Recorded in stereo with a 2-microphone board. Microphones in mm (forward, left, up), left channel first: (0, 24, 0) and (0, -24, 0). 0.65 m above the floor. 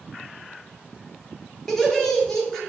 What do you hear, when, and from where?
1.7 s laughter: 10° left (ahead or behind), 1.2 m